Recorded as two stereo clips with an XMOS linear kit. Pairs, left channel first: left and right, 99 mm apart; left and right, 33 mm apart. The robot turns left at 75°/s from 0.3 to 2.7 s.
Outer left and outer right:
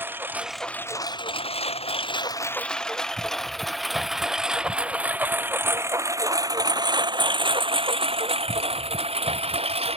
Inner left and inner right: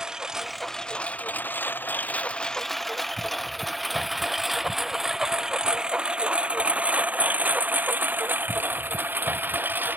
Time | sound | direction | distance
0.0 | a lawn mower | 20° right (ahead or behind) | ?